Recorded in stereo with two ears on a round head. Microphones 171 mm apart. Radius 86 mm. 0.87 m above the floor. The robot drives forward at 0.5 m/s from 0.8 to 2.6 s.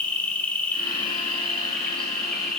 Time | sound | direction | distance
0.0 | an insect | 10° left (ahead or behind) | 1.2 m